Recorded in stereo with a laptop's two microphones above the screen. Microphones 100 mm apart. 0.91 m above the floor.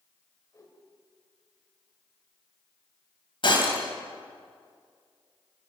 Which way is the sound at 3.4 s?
55° left (ahead or behind).